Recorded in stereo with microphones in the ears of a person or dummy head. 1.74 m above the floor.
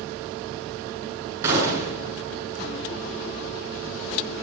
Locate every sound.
1.4 s a gunshot: 20° right (ahead or behind), 8.5 m